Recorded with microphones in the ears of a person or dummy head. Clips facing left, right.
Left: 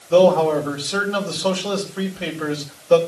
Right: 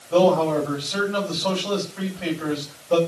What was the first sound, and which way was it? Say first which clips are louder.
A man speaking: left 4 dB; 45° left (ahead or behind).